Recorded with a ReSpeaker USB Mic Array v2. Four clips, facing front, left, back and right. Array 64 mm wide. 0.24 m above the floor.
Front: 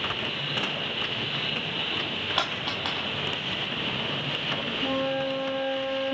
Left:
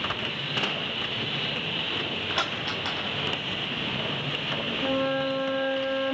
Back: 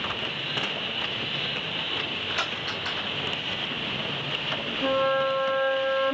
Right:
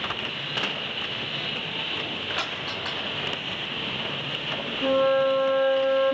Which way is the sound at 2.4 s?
15° left.